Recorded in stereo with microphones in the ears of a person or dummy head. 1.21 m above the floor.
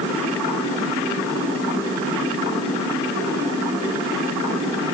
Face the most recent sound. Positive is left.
No sound to turn to.